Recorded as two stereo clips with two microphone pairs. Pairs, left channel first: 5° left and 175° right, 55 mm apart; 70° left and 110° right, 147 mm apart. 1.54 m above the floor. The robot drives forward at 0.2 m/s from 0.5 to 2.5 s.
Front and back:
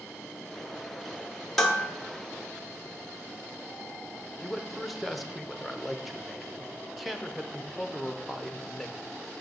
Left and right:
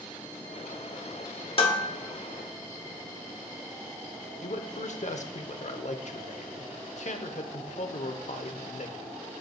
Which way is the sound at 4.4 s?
90° left.